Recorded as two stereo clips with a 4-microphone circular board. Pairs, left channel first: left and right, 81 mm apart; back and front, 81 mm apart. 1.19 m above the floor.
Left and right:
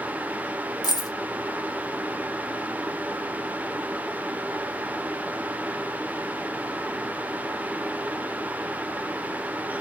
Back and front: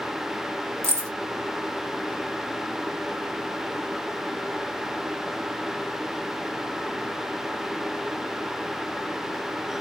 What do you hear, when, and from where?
0.8 s keys jangling: 55° left, 0.7 m